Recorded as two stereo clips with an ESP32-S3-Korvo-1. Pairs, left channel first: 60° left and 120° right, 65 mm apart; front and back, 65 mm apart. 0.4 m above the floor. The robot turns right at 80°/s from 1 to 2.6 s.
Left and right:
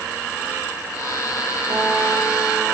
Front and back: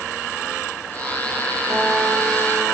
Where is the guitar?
145° right, 6.5 m; by 2.6 s 70° right, 6.5 m.